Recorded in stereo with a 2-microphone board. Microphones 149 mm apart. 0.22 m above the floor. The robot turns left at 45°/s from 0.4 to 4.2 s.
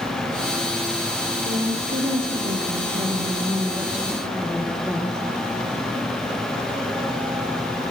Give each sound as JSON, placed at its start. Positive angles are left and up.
{"t": 1.4, "sound": "a woman speaking", "azimuth_deg": -60, "distance_m": 4.5}